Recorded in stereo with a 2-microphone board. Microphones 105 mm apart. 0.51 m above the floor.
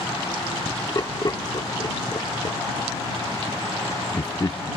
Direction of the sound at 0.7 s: 40° left (ahead or behind).